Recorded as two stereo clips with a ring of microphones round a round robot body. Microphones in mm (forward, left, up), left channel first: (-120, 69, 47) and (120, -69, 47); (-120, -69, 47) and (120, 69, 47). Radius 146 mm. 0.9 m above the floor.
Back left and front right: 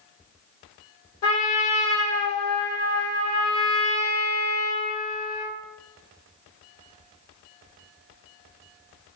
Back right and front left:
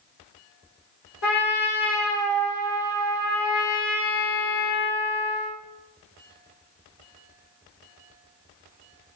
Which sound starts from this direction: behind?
A trumpet, at 1.2 s.